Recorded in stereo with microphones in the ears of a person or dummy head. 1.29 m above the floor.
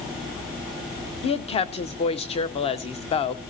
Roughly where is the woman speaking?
Left.